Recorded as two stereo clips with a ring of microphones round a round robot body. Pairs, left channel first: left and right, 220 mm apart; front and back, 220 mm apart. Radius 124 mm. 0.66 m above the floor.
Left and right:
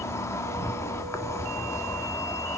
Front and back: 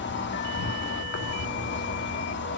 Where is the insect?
15° left, 1.9 m.